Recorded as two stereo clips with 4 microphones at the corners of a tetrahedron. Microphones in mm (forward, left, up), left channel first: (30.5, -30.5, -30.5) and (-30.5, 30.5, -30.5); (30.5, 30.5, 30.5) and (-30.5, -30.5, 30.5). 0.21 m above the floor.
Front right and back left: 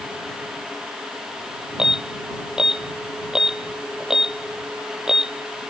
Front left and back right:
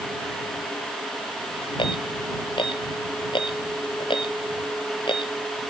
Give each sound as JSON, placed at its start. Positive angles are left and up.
{"t": 1.8, "sound": "an alarm", "azimuth_deg": 55}